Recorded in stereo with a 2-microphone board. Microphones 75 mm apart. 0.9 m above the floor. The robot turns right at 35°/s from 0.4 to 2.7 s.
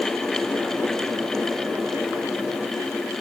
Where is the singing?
No singing in this recording.